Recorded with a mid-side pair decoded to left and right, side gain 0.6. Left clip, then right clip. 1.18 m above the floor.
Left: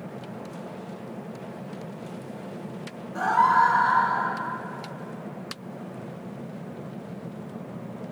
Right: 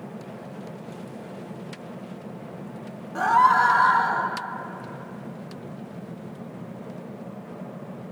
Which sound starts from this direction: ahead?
A scream, at 3.1 s.